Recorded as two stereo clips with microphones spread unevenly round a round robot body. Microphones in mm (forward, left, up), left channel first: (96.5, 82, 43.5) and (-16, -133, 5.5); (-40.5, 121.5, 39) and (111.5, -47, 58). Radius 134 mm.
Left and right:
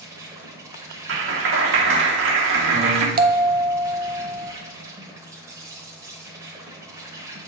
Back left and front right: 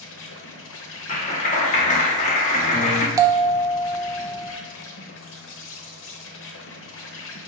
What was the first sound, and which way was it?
An insect, 155° left.